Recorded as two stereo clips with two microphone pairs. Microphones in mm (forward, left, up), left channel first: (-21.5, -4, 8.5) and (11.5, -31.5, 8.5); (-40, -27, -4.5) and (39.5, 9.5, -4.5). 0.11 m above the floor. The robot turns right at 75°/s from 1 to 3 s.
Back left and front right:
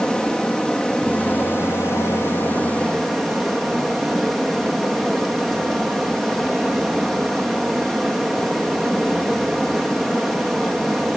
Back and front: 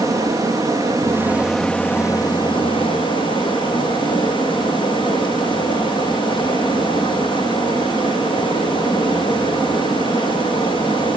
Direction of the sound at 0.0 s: 75° left.